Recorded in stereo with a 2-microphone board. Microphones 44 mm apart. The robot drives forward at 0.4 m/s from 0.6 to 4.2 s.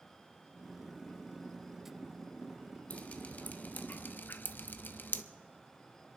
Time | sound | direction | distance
2.9 | dripping | 30° left (ahead or behind) | 1.1 m